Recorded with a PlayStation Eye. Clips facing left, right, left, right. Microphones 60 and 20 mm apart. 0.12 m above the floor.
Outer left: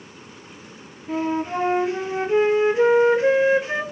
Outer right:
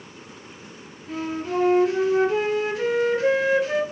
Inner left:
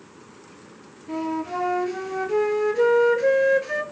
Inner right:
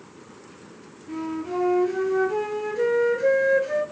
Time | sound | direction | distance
1.1 | a flute | 25° left (ahead or behind) | 0.6 m